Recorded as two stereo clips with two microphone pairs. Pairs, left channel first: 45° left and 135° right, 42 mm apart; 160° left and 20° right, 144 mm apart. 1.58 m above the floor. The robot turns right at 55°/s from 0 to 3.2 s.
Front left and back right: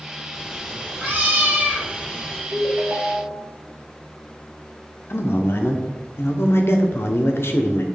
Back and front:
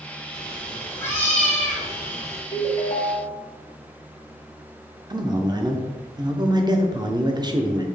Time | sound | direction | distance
0.3 | a cat meowing | 175° left | 1.2 m
2.5 | a ringtone | 170° left | 0.7 m
5.1 | a man speaking | 40° left | 0.5 m